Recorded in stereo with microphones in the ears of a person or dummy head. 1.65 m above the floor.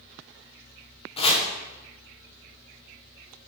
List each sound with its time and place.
1.2 s chopping: 30° left (ahead or behind), 1.3 m